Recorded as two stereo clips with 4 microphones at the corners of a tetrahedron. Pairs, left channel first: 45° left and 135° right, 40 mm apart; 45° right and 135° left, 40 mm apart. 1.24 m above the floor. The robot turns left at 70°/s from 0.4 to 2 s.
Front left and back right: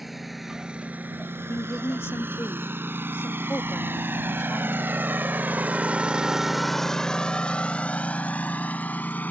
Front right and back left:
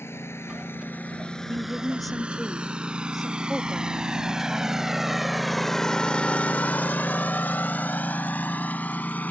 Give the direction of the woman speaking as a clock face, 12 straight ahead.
9 o'clock.